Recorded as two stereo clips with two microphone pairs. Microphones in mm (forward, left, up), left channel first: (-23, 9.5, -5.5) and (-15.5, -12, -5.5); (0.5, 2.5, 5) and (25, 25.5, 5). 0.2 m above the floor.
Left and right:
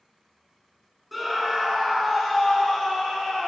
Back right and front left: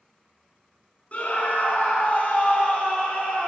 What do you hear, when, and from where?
1.1 s a scream: 160° right, 1.8 m; by 3.5 s 175° right, 3 m